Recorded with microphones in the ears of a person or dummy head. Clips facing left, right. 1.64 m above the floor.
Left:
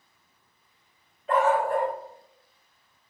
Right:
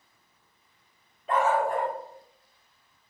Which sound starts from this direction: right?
A dog barking, at 1.3 s.